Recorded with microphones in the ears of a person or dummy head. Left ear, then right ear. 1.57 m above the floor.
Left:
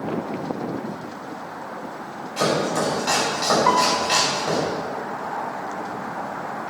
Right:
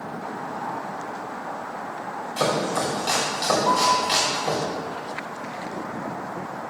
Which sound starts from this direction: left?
A piano, at 3.7 s.